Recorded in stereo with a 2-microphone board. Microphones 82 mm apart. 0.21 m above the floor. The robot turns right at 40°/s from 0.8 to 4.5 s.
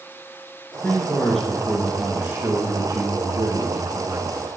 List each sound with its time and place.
0.8 s a man speaking: 150° left, 2.5 m; by 4.4 s 70° right, 2.5 m